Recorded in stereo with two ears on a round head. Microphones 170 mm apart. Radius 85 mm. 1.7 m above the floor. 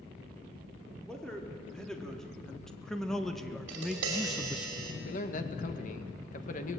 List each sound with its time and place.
1.0 s a man speaking: 5° left (ahead or behind), 4 m; by 4.7 s 5° right (ahead or behind), 0.5 m
3.7 s tapping: 75° right (ahead or behind), 6 m
5.0 s a man speaking: 45° left (ahead or behind), 1.9 m